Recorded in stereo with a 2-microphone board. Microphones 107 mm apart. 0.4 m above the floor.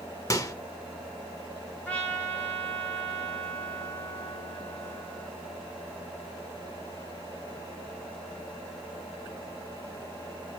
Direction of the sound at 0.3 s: 30° left (ahead or behind).